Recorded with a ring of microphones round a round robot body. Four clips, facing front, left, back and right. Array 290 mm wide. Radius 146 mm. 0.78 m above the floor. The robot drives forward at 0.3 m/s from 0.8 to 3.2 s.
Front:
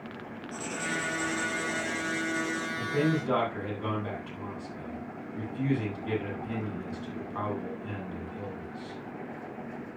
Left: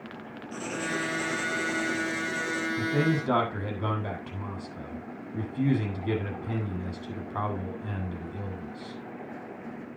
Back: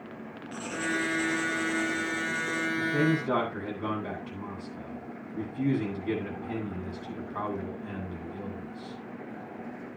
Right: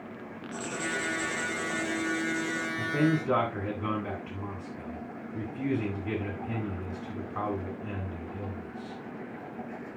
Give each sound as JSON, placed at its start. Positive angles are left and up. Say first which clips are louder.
{"t": 0.5, "sound": "writing", "louder": "left 2 dB, back 3 dB", "azimuth_deg": 80, "distance_m": 5.5}
{"t": 2.8, "sound": "a man speaking", "louder": "right 1 dB, back 1 dB", "azimuth_deg": 90, "distance_m": 8.0}